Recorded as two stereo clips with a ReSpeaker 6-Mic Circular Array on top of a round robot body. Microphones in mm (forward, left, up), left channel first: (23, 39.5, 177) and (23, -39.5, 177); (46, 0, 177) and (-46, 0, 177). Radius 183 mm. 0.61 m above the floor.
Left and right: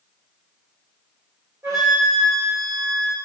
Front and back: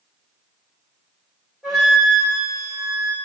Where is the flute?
95° right, 1.5 m.